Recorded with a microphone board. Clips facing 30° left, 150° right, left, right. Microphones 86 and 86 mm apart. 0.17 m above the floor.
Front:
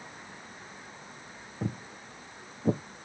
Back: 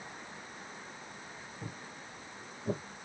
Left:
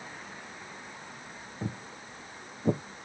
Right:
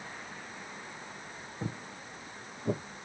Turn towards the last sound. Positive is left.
turn(degrees=50)